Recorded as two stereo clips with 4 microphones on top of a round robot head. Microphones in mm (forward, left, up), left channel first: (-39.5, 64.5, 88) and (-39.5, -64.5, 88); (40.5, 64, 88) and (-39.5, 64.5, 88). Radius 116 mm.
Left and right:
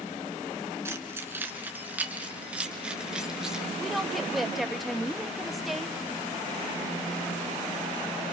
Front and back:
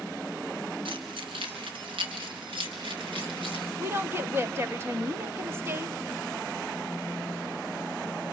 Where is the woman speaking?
Straight behind, 1.4 m.